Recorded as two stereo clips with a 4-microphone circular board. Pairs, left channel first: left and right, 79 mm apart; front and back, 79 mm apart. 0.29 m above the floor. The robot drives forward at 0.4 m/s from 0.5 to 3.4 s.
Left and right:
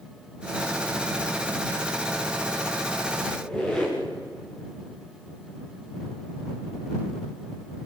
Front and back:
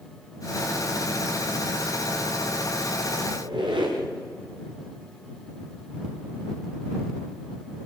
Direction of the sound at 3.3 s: 170° left.